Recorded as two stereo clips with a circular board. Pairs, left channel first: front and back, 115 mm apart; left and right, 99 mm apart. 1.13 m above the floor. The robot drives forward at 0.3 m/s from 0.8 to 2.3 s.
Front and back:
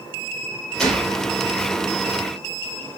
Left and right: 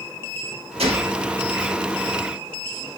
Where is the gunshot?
85° right, 0.9 m; by 1.3 s 95° right, 0.9 m.